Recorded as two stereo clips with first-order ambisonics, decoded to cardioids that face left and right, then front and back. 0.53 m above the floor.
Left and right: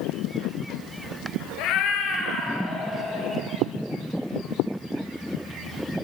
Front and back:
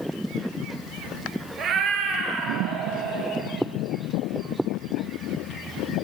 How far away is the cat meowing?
About 1.1 m.